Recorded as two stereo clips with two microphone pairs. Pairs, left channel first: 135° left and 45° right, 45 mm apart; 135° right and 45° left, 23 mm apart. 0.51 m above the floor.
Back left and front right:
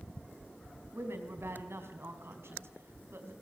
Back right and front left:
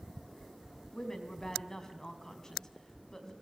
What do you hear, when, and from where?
0.9 s a woman speaking: 65° right, 4 m